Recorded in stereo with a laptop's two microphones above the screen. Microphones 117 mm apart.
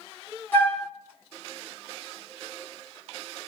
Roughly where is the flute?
Centre.